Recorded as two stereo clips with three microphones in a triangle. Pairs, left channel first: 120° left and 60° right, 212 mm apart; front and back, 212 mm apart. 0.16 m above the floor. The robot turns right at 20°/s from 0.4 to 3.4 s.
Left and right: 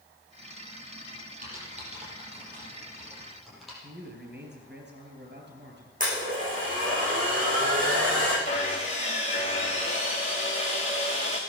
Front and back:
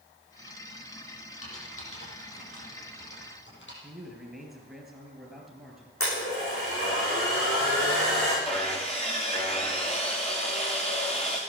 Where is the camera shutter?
I don't hear a camera shutter.